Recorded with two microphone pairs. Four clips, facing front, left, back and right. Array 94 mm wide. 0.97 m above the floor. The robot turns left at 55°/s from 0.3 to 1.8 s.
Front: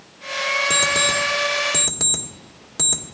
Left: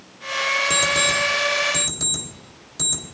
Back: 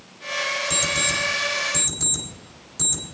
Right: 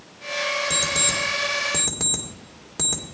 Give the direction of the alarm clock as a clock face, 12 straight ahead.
11 o'clock.